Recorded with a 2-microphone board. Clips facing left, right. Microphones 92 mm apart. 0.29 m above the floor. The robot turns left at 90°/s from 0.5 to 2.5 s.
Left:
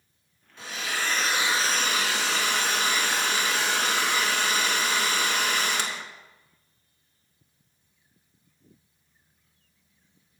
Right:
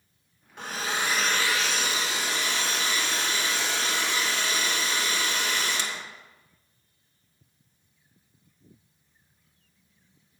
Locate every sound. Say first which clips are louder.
0.6 s a hair dryer: right 2 dB; 120° right, 0.9 m; by 6.0 s 65° left, 0.9 m